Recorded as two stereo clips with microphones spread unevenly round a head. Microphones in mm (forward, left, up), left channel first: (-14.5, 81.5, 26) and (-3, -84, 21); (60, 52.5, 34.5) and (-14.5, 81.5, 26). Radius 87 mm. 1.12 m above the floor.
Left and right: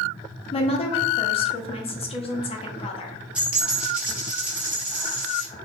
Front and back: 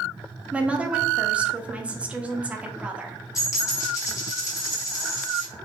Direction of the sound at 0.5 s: 110° left.